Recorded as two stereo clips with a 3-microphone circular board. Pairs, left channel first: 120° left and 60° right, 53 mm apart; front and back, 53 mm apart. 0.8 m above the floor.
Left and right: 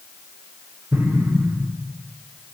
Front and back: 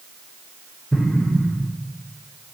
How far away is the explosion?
About 1.2 m.